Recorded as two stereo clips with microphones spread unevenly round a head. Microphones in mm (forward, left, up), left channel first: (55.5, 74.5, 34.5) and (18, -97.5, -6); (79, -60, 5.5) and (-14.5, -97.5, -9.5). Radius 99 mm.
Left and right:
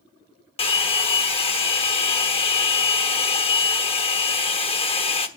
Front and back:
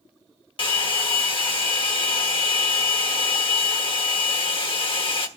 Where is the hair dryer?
35° left, 1.3 m.